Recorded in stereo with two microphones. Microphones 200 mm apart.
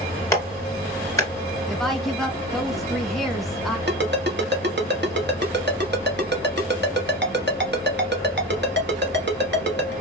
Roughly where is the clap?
Centre.